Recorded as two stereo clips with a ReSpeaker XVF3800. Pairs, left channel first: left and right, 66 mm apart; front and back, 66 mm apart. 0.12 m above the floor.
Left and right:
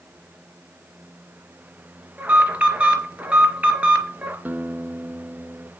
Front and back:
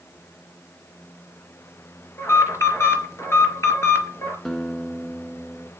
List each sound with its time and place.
2.2 s an alarm: 25° right, 3.5 m
4.5 s a guitar: 80° right, 1.1 m